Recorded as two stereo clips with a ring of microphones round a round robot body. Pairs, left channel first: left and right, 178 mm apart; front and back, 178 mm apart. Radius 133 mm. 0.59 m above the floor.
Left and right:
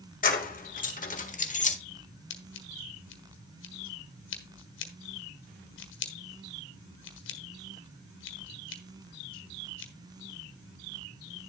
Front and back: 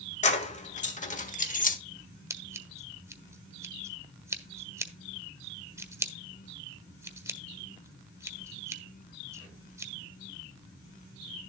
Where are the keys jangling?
50° left, 1.9 m; by 1.8 s 40° left, 1.2 m.